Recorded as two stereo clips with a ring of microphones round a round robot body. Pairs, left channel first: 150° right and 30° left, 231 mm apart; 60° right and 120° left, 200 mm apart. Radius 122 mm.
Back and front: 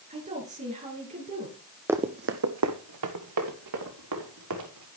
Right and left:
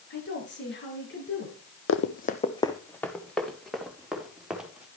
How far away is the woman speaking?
About 5.5 m.